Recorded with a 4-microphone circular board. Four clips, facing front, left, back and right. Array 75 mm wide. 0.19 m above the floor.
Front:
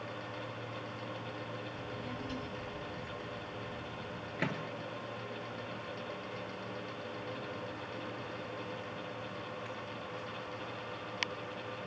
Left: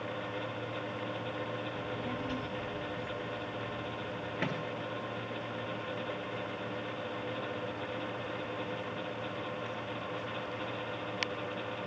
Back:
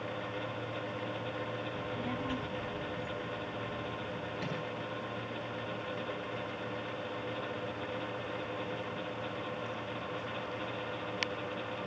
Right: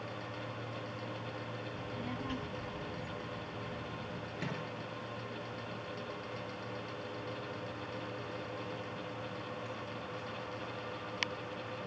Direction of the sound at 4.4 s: 35° left.